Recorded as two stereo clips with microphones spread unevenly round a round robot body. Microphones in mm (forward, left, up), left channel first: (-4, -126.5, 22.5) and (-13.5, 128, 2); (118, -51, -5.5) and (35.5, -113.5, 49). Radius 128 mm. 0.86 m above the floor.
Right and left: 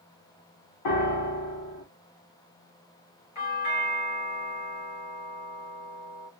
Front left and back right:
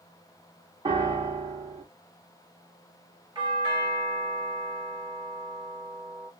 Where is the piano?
90° right, 1.6 m.